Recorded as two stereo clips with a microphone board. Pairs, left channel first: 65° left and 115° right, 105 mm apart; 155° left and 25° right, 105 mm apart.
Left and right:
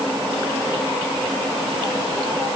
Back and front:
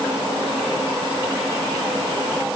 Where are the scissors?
No scissors in this recording.